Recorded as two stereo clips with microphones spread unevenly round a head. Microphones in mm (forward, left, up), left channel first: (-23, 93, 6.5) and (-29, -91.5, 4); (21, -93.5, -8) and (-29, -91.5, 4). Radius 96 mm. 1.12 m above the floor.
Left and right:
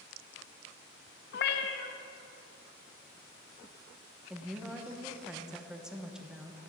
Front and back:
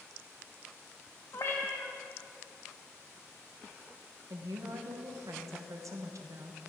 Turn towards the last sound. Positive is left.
turn(degrees=-175)